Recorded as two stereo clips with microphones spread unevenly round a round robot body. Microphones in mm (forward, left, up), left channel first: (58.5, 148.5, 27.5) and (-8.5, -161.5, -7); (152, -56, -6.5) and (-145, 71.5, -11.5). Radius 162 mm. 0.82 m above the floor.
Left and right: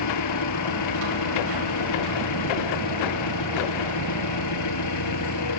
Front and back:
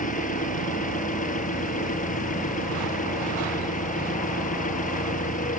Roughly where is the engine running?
Ahead left.